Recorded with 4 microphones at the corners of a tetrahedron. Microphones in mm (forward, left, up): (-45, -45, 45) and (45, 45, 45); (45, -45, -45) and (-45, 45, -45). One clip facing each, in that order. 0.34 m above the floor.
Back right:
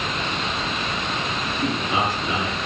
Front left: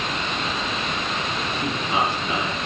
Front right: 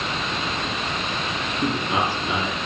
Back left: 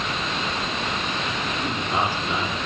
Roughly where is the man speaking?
Ahead right.